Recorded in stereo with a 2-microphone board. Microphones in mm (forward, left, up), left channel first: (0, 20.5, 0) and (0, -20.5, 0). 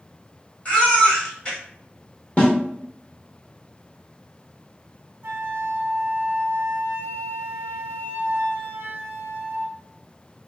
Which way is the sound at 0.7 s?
35° left (ahead or behind).